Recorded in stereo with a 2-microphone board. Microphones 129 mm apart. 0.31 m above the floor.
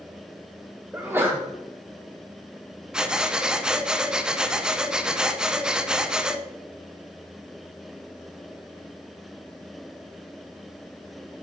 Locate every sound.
0.9 s a sneeze: 15° right (ahead or behind), 1.3 m
2.9 s breathing: 5° right (ahead or behind), 0.7 m